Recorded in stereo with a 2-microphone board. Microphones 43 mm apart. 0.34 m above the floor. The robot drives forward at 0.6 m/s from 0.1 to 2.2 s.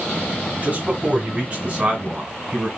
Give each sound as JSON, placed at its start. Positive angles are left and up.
{"t": 0.6, "sound": "a man speaking", "side_deg": -35, "distance_m": 2.0}